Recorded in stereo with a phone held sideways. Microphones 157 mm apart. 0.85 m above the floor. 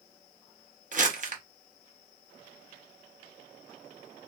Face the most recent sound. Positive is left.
turn(degrees=-50)  # may be behind; listen again after turning